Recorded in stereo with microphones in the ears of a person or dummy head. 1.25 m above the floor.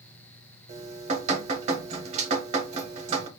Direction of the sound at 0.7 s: 30° right (ahead or behind).